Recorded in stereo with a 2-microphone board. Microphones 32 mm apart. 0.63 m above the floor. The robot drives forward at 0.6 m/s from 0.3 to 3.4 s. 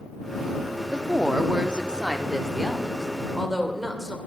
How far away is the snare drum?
I don't hear a snare drum.